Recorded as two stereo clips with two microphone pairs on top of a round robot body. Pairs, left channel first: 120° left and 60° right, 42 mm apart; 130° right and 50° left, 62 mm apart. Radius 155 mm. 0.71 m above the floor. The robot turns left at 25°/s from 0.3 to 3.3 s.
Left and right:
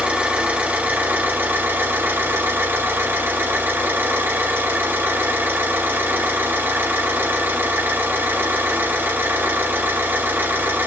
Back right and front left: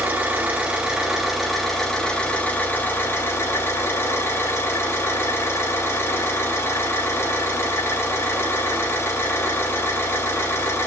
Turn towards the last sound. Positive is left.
turn(degrees=-80)